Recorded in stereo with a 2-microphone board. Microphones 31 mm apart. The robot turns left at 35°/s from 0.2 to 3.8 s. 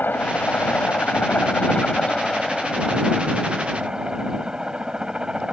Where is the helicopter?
75° left (ahead or behind); by 5.5 s 25° right (ahead or behind).